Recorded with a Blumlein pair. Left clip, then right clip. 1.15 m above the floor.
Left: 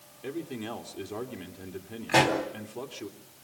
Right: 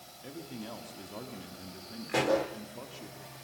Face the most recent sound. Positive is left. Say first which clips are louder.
# left 5 dB
turn(degrees=65)